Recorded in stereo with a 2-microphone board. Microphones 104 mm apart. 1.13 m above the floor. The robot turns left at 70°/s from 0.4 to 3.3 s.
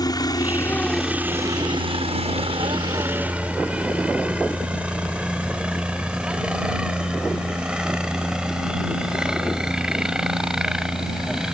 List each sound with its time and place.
0.0 s a helicopter: 40° left (ahead or behind); by 11.6 s 5° right (ahead or behind)